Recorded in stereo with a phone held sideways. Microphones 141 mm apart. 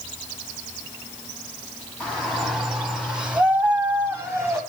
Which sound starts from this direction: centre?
A shout, at 2.0 s.